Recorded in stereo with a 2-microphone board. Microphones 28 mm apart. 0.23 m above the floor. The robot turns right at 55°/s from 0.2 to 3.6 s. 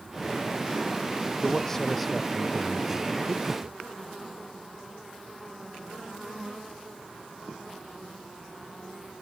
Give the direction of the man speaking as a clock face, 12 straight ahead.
7 o'clock.